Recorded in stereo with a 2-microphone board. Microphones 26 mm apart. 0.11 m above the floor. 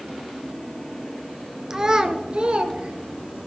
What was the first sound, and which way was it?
A child speaking, 20° right (ahead or behind).